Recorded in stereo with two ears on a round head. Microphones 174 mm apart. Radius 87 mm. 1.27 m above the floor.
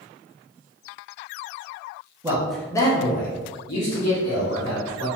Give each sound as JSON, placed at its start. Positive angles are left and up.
{"t": 2.2, "sound": "a man speaking", "side_deg": -15, "distance_m": 0.7}